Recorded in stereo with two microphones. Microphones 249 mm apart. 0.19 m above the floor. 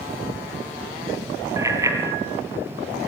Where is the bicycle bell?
15° right (ahead or behind), 3 m.